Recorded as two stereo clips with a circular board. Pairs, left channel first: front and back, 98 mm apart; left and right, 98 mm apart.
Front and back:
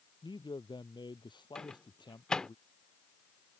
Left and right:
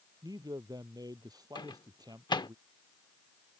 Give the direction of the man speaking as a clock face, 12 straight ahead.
1 o'clock.